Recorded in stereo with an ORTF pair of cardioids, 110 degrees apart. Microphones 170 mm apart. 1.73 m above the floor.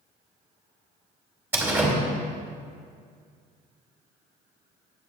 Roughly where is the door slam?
Ahead.